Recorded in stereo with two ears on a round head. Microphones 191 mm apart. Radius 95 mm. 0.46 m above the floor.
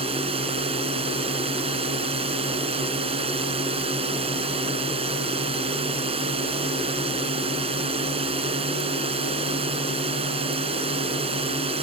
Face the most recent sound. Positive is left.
turn(degrees=-30)  # may be behind; listen again after turning